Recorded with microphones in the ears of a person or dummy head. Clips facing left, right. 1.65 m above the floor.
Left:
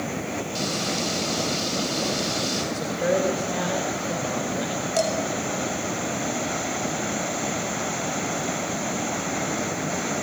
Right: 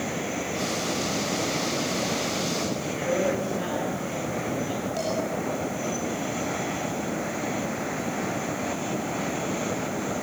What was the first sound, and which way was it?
Frying, 30° left (ahead or behind).